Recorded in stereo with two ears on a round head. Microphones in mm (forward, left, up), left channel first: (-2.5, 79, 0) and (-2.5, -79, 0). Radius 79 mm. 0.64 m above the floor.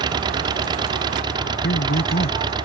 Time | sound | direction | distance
0.0 | an engine running | 25° right (ahead or behind) | ?
1.6 | a man speaking | 60° left (ahead or behind) | ?